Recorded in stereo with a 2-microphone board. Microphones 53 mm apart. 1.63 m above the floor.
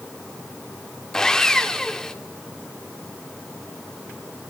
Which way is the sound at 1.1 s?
10° left (ahead or behind).